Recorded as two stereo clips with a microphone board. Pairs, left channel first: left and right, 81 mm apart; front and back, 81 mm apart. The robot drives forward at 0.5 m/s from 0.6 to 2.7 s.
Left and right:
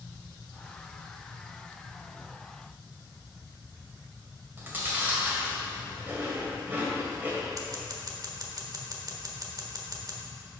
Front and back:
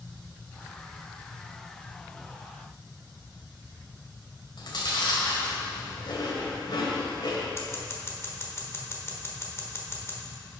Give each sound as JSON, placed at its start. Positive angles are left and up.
{"t": 4.6, "sound": "chewing", "azimuth_deg": -25, "distance_m": 1.9}
{"t": 7.6, "sound": "scissors", "azimuth_deg": -55, "distance_m": 1.1}